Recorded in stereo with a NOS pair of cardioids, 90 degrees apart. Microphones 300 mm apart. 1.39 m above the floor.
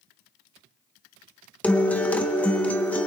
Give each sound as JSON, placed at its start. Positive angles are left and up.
{"t": 1.6, "sound": "a guitar", "azimuth_deg": 5, "distance_m": 0.9}